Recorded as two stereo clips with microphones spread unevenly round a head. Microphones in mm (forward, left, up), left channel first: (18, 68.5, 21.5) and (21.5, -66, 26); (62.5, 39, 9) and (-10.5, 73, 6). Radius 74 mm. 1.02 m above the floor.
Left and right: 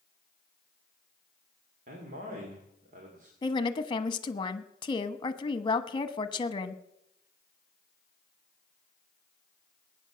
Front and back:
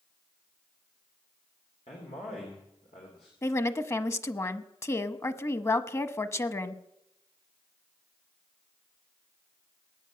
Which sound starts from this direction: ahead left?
A woman speaking, at 3.4 s.